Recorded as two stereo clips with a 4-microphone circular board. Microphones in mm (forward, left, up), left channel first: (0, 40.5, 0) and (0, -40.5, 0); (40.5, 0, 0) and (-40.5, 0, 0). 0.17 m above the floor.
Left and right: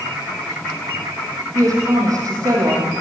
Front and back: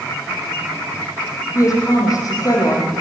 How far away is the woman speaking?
About 7 m.